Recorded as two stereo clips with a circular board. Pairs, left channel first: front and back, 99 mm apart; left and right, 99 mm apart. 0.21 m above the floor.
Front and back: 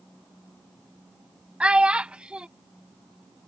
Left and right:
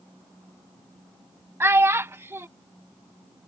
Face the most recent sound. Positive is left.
turn(degrees=-115)